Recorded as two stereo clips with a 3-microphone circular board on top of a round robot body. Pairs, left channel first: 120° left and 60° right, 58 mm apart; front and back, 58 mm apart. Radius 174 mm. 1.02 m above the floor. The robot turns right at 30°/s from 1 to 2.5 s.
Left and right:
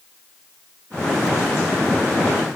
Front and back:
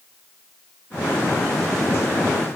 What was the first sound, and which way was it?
Only background noise.